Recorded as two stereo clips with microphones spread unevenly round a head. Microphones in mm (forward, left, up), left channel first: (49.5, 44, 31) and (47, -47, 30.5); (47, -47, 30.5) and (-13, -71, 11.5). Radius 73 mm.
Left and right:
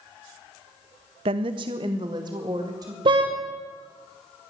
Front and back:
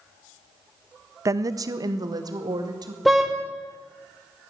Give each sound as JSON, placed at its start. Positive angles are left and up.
{"t": 1.2, "sound": "a woman speaking", "azimuth_deg": -125, "distance_m": 0.7}
{"t": 3.0, "sound": "a car horn", "azimuth_deg": -65, "distance_m": 2.5}